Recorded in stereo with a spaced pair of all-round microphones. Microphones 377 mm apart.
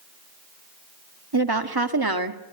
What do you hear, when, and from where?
1.3 s a woman speaking: 85° right, 1.9 m; by 2.4 s 65° right (ahead or behind), 1.9 m